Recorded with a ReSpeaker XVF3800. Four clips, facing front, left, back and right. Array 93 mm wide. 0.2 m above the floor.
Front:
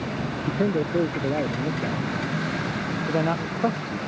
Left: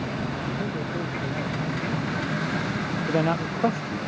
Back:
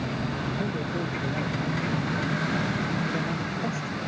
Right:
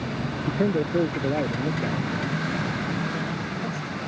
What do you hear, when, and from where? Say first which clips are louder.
0.5 s a man speaking: right 6 dB, front 6 dB; 45° right
3.1 s a man speaking: left 6 dB, front 5 dB; 50° left